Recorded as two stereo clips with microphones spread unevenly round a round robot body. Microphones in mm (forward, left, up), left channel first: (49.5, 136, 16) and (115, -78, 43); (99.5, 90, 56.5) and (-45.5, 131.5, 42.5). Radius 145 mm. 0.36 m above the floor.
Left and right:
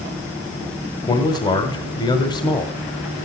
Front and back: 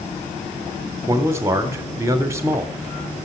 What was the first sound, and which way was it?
A man speaking, 130° left.